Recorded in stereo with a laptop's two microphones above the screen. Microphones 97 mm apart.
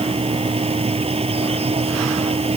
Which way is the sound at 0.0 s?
85° right.